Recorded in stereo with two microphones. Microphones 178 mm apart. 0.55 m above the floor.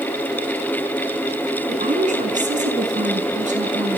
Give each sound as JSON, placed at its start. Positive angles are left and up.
{"t": 1.7, "sound": "a woman speaking", "side_deg": -45, "distance_m": 5.0}